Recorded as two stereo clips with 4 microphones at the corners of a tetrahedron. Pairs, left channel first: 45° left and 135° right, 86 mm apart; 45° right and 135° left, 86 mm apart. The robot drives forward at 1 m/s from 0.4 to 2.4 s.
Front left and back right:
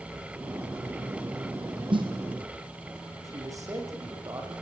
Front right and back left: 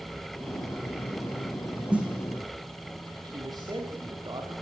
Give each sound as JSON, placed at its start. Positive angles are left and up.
{"t": 1.9, "sound": "a snare drum", "azimuth_deg": -150, "distance_m": 6.0}
{"t": 3.2, "sound": "a man speaking", "azimuth_deg": 175, "distance_m": 9.0}